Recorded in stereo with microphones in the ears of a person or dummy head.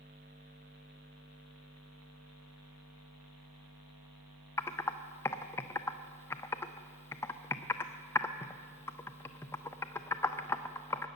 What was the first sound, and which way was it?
Typing on a keyboard, 15° left (ahead or behind).